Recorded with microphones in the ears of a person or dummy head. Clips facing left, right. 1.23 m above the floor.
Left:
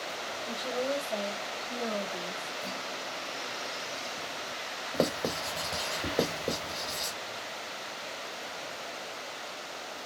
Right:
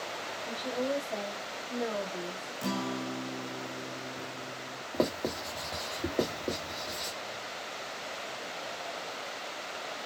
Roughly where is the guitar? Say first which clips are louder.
Right 6 dB; right.